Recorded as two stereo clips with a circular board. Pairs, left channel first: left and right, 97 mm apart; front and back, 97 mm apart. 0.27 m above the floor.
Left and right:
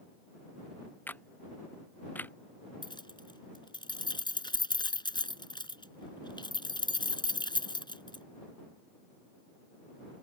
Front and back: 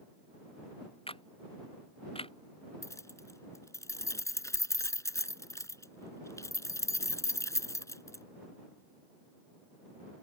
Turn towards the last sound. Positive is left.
turn(degrees=55)